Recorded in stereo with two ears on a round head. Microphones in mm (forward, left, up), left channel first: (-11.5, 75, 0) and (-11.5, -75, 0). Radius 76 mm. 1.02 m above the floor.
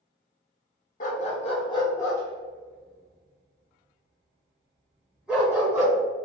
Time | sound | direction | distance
1.0 | a dog barking | 50° left (ahead or behind) | 1.0 m